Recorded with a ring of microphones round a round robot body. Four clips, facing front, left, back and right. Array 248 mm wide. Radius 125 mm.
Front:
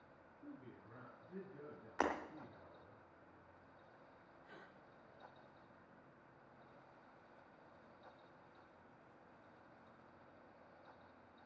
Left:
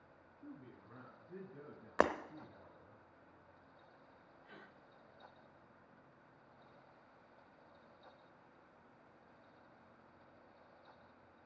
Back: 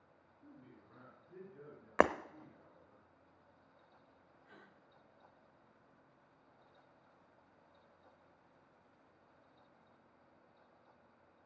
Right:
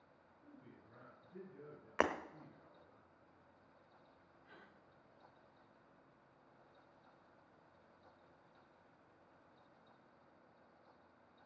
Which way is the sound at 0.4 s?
70° left.